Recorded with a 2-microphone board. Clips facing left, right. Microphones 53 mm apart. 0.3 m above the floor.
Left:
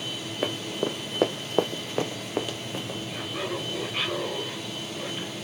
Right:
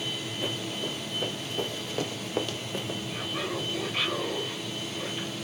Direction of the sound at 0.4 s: 50° left (ahead or behind).